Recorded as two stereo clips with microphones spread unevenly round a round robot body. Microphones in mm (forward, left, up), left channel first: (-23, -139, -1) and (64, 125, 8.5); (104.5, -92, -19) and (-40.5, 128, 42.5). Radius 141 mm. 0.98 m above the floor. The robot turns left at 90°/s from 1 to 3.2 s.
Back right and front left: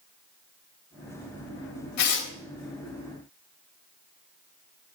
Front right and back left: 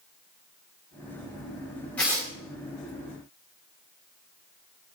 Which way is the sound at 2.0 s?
145° right.